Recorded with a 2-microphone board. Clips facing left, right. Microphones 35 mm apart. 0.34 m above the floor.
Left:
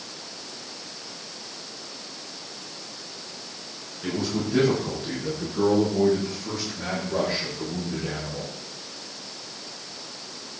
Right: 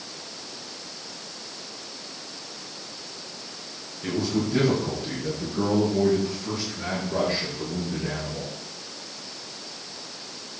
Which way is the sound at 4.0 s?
25° left (ahead or behind).